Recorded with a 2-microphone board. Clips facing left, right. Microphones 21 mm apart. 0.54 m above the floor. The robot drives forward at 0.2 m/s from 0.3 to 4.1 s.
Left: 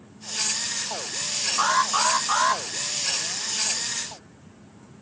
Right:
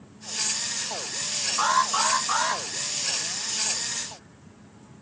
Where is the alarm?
15° left (ahead or behind), 1.5 m; by 2.6 s 10° left (ahead or behind), 1.7 m.